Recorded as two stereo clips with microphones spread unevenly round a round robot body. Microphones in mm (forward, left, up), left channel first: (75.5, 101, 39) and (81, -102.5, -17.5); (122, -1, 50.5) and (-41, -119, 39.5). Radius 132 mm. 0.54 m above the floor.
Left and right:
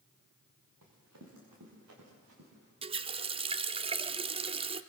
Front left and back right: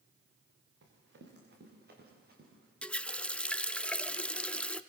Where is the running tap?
50° right, 0.7 m.